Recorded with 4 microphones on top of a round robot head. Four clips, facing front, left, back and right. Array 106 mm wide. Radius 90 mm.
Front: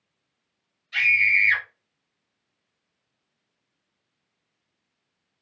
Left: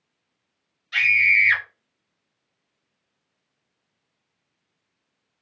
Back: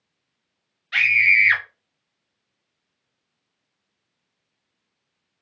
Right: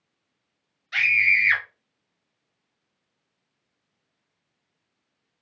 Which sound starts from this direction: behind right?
A scream, at 0.9 s.